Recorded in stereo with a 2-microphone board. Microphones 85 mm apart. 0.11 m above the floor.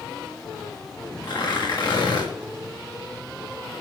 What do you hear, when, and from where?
1.2 s tearing paper: 50° left (ahead or behind), 8 m